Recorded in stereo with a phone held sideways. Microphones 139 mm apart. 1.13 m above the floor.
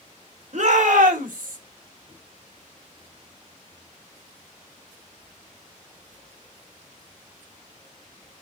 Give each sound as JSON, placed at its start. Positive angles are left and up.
{"t": 0.5, "sound": "a shout", "side_deg": -60, "distance_m": 1.3}